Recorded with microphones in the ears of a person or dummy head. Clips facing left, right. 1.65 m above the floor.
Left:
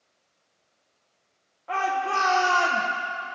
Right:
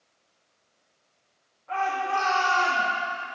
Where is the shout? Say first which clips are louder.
Left 1 dB; 75° left (ahead or behind), 1.4 m.